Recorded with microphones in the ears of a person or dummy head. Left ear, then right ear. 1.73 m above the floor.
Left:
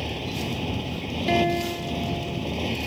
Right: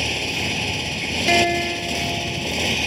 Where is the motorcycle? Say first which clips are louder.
Right 8 dB; 75° right (ahead or behind); by 2.9 s 70° right (ahead or behind).